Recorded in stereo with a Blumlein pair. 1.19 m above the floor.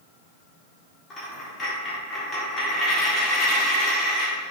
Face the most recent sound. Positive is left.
turn(degrees=20)